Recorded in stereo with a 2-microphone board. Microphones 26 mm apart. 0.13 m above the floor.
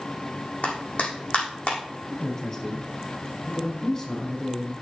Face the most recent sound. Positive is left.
turn(degrees=25)  # may be behind; listen again after turning